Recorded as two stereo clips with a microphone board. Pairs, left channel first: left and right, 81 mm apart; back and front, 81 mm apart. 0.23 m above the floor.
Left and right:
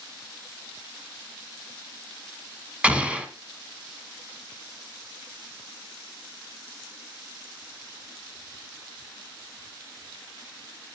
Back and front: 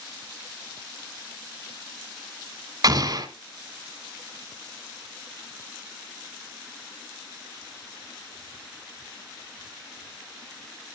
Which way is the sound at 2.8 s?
15° right.